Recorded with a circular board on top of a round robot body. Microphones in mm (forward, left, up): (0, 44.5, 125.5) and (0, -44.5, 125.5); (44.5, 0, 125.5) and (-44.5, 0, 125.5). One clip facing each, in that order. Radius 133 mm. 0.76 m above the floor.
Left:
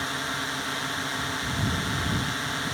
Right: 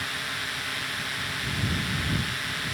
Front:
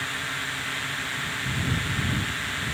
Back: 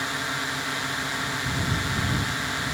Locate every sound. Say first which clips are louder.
0.0 s a drone: left 3 dB, back 3 dB; 125° left